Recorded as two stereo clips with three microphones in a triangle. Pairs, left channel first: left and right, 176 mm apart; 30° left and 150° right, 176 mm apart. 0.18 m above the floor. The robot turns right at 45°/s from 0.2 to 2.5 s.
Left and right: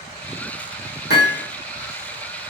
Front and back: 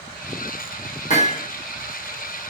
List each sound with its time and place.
1.1 s hammering: 75° left, 5 m; by 1.4 s 90° left, 5 m